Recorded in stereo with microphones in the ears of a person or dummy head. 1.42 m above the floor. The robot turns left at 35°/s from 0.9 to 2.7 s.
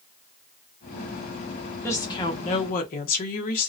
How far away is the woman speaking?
About 0.7 m.